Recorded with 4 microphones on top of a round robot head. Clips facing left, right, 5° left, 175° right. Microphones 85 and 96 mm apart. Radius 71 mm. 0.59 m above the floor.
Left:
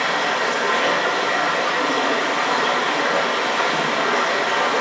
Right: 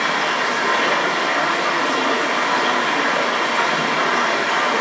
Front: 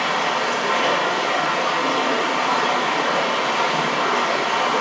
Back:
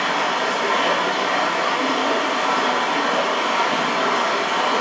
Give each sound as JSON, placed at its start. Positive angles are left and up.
{"t": 0.0, "sound": "running water", "azimuth_deg": -165, "distance_m": 4.5}